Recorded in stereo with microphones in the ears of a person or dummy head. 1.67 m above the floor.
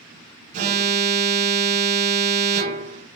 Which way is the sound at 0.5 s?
45° right (ahead or behind).